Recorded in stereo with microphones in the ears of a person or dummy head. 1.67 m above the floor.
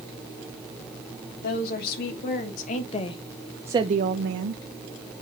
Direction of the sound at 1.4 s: 55° left (ahead or behind).